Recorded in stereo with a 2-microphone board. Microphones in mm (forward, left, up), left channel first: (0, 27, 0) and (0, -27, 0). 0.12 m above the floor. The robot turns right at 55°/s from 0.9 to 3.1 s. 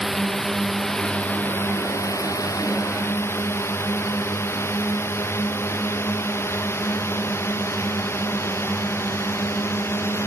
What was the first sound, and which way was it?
A drone, 10° left (ahead or behind).